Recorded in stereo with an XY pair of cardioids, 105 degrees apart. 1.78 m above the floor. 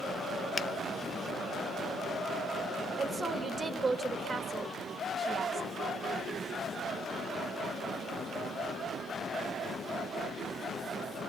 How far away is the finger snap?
About 0.8 m.